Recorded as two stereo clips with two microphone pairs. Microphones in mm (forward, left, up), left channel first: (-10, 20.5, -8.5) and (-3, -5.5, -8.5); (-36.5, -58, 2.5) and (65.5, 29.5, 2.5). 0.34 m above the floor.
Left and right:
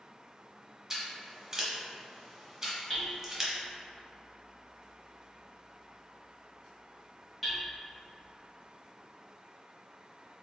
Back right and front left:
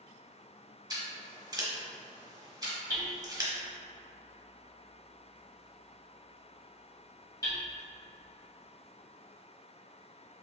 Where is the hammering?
175° right, 1.0 m.